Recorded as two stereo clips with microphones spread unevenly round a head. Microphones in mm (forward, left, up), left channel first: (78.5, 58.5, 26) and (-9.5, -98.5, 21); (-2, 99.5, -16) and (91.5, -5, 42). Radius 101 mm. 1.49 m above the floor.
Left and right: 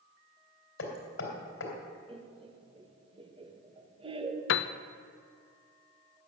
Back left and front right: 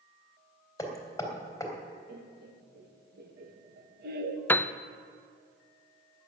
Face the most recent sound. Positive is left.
turn(degrees=65)